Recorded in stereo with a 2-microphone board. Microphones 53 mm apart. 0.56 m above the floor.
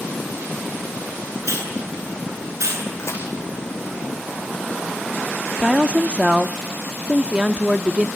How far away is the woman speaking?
About 0.8 m.